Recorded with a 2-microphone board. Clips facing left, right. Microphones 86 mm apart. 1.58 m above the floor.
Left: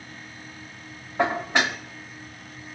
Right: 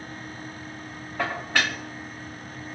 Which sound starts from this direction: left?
Dishes clattering, at 1.2 s.